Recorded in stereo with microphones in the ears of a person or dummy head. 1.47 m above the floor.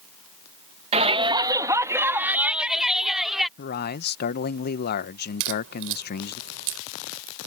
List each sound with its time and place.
0.9 s a shout: 35° right (ahead or behind); by 3.5 s centre (ahead or behind)
3.6 s a man speaking: 50° left (ahead or behind)
5.4 s a crack: 70° right (ahead or behind)